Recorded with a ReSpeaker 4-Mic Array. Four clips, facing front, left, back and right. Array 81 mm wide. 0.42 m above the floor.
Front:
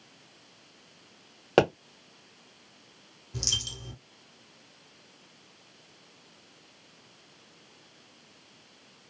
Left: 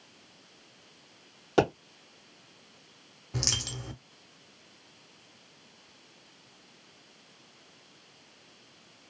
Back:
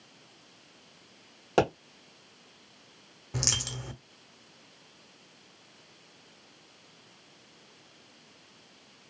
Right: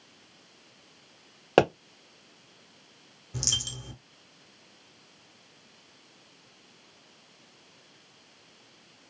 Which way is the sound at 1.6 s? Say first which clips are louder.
Right 3 dB, front 3 dB; 65° right.